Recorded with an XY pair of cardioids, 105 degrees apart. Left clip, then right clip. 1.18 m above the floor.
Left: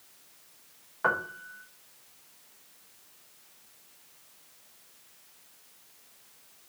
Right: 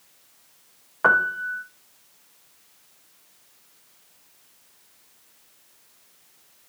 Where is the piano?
45° right, 1.1 m.